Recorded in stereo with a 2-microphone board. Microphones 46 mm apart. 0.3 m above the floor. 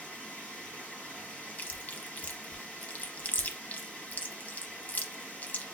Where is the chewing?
40° left (ahead or behind), 0.6 m.